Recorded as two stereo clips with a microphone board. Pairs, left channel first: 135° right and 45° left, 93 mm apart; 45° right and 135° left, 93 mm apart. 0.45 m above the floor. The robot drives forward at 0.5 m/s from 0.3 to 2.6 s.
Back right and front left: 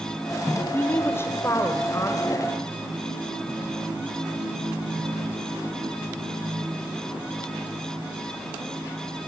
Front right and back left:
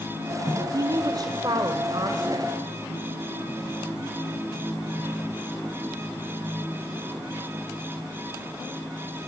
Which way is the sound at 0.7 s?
165° left.